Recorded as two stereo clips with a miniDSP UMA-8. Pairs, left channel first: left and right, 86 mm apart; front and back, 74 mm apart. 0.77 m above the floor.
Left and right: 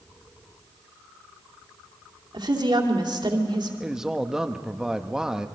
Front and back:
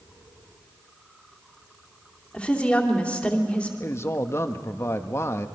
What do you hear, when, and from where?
2.3 s a woman speaking: 75° right, 2.5 m
3.8 s a man speaking: 10° right, 0.9 m